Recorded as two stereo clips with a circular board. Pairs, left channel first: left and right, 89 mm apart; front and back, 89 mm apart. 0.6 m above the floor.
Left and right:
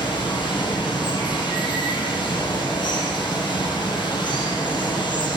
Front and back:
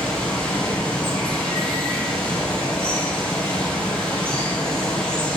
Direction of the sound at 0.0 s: 80° left.